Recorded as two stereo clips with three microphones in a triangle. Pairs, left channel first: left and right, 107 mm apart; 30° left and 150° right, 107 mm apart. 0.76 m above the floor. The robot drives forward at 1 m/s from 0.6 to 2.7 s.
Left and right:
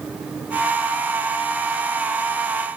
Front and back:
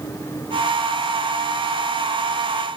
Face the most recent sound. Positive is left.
No sound to turn to.